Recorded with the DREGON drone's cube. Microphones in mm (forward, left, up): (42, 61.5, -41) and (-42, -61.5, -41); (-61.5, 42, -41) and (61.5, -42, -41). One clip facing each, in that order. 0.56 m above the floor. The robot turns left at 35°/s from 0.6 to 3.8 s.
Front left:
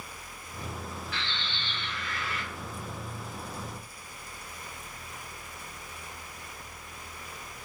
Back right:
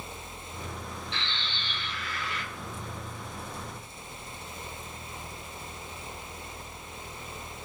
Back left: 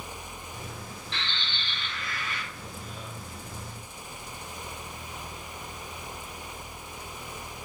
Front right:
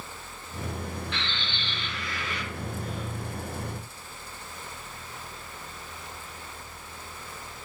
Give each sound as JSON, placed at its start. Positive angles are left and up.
{"t": 1.1, "sound": "a bird", "azimuth_deg": -175, "distance_m": 1.3}